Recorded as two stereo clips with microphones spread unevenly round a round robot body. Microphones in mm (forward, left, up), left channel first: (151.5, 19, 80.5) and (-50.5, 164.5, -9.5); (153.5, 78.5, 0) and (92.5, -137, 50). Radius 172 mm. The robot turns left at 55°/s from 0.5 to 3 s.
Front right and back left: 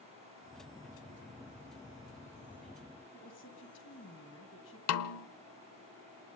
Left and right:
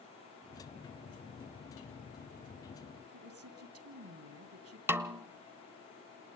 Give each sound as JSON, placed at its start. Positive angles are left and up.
{"t": 3.1, "sound": "a woman speaking", "azimuth_deg": -95, "distance_m": 2.5}
{"t": 4.9, "sound": "a snare drum", "azimuth_deg": -15, "distance_m": 1.2}